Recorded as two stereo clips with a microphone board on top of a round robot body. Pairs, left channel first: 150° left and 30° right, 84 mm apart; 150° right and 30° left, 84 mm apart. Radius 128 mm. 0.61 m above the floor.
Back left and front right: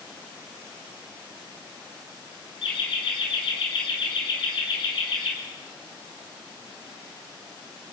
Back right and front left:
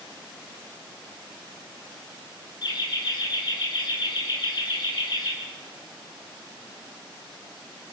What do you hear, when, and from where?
2.6 s laughter: 170° left, 9.5 m; by 5.3 s 175° left, 8 m